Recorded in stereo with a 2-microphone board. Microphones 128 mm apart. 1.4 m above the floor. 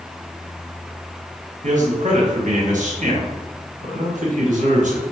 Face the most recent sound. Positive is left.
turn(degrees=-75)  # may be behind; listen again after turning